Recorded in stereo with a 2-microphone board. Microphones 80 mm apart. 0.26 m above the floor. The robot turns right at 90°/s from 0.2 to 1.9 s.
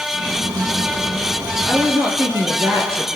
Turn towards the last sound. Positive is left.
turn(degrees=-35)  # may be behind; listen again after turning